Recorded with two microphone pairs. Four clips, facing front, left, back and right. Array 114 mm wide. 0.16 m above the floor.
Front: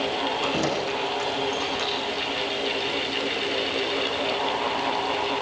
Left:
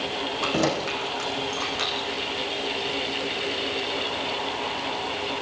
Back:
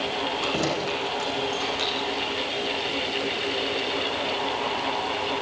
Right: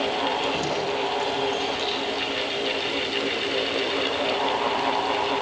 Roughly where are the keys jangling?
Left.